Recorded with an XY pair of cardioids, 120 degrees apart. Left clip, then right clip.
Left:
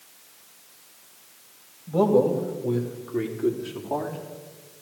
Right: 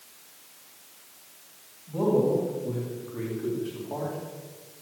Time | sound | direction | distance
1.9 | a man speaking | 60° left | 3.5 m